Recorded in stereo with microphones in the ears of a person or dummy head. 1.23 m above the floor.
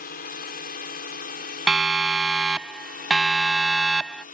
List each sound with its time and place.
0.0 s a drone: 50° left (ahead or behind); by 4.3 s 40° left (ahead or behind)
1.7 s a siren: 5° right (ahead or behind); by 4.2 s centre (ahead or behind)